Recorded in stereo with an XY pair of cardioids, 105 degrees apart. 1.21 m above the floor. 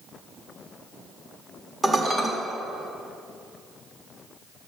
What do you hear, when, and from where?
1.8 s dishes clattering: 25° right, 1.4 m